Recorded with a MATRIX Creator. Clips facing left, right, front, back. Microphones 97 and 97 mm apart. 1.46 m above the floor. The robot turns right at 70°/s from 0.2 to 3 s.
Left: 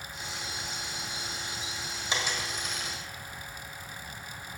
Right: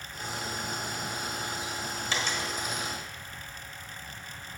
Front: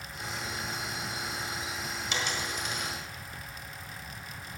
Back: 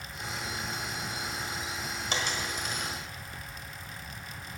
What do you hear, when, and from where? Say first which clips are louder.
2.1 s a dropped coin: even, back 1 dB; 150° left, 1.6 m; by 2.9 s 150° right, 1.6 m